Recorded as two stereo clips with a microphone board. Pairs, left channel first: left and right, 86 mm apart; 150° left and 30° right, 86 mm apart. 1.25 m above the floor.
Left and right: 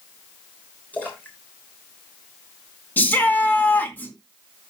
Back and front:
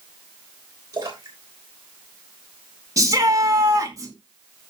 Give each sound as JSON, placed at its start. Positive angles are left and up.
{"t": 0.9, "sound": "a splash", "azimuth_deg": 15, "distance_m": 6.0}
{"t": 3.0, "sound": "a shout", "azimuth_deg": 20, "distance_m": 2.0}